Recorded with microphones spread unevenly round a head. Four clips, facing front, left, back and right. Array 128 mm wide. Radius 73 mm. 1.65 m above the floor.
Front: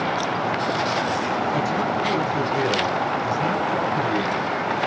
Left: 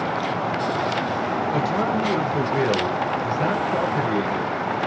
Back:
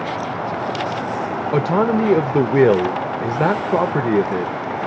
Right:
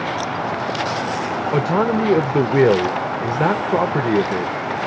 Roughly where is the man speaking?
Behind right.